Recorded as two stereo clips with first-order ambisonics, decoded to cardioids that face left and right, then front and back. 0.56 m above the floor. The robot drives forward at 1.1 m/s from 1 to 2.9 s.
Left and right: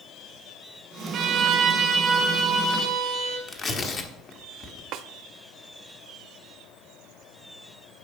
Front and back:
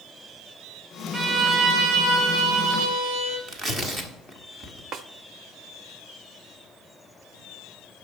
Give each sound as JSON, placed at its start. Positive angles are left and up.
{"t": 1.1, "sound": "a violin", "azimuth_deg": -110, "distance_m": 1.1}
{"t": 3.5, "sound": "tearing paper", "azimuth_deg": 130, "distance_m": 1.1}
{"t": 4.9, "sound": "a snare drum", "azimuth_deg": -125, "distance_m": 0.5}